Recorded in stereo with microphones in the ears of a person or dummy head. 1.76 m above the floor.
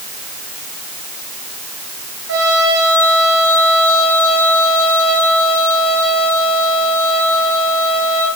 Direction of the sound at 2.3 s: 75° right (ahead or behind).